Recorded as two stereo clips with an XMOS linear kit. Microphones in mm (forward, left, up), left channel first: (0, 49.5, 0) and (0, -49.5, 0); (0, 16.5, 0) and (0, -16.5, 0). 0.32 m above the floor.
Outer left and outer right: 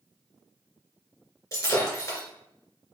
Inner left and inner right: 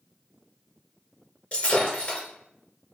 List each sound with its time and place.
1.5 s breaking glass: 30° left (ahead or behind), 2.5 m